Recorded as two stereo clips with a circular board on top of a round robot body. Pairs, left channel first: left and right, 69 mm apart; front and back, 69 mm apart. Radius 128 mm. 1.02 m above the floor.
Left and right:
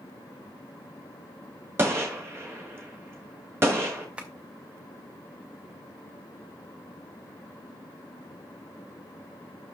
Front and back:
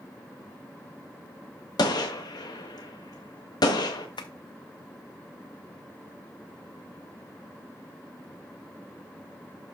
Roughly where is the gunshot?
Ahead right.